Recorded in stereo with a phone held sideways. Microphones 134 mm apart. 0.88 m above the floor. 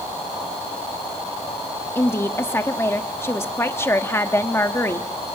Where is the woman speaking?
20° left (ahead or behind), 1.3 m.